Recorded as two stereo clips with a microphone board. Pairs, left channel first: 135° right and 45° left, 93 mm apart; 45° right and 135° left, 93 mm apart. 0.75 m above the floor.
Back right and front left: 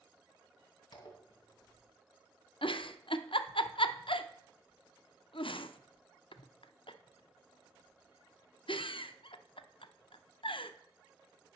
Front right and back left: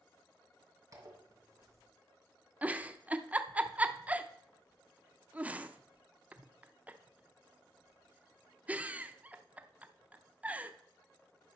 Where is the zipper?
170° right, 2.5 m.